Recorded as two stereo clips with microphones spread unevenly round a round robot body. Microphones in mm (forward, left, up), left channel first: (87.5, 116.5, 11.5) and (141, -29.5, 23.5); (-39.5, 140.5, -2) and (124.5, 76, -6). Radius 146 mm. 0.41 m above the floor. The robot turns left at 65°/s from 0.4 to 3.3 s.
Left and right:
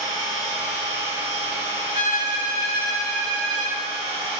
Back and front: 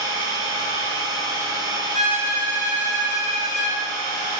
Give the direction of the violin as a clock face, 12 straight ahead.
8 o'clock.